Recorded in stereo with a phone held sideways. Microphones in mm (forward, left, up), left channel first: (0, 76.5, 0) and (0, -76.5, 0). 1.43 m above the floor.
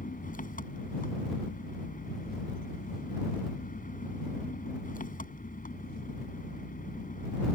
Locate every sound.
0.0 s an engine running: 65° left (ahead or behind)